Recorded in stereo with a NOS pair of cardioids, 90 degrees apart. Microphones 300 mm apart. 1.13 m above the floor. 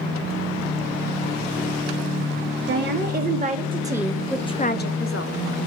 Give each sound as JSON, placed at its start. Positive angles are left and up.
{"t": 2.7, "sound": "a woman speaking", "azimuth_deg": -40, "distance_m": 1.7}